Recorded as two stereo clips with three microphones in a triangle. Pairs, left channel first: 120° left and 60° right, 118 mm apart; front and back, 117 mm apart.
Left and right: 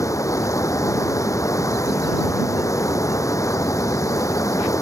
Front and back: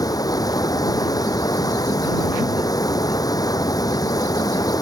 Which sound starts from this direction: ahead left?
Running water, at 0.0 s.